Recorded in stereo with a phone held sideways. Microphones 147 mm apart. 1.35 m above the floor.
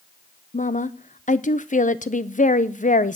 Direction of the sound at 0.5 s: 60° left (ahead or behind).